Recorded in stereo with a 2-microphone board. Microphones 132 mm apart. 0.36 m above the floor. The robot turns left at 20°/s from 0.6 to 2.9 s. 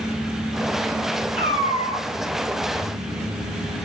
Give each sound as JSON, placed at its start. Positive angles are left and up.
{"t": 1.4, "sound": "a cat meowing", "side_deg": 50, "distance_m": 1.3}